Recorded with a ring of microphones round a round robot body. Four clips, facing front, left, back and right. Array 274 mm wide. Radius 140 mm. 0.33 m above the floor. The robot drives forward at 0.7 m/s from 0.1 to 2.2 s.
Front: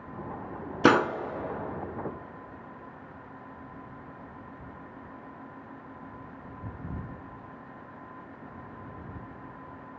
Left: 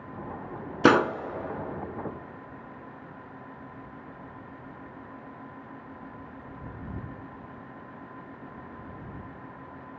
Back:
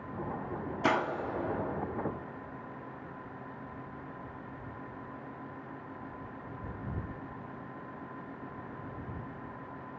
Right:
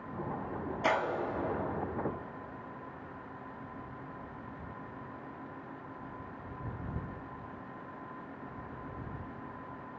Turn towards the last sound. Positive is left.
turn(degrees=140)